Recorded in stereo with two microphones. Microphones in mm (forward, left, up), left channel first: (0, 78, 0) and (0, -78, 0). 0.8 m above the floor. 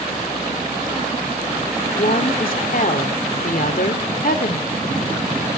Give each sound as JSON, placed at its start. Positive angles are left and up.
{"t": 1.9, "sound": "a woman speaking", "side_deg": 65, "distance_m": 2.0}